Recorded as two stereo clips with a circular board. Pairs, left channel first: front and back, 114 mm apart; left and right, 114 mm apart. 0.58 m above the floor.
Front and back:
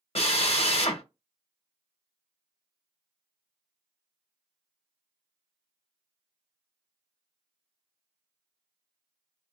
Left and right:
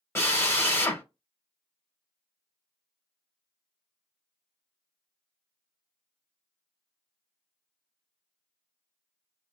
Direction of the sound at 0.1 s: 25° left.